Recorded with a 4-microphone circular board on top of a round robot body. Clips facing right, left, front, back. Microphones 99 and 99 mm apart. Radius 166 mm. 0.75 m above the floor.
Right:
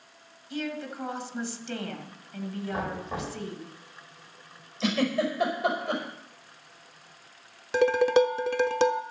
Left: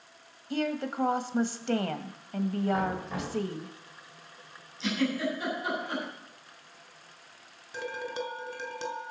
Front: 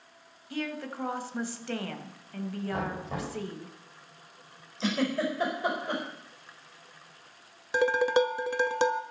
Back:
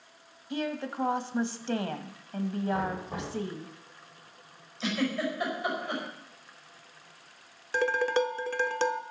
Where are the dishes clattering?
75° right, 0.8 m.